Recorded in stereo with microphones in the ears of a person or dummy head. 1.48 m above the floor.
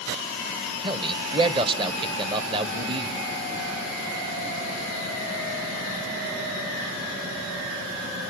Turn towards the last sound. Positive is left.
turn(degrees=-35)  # may be behind; listen again after turning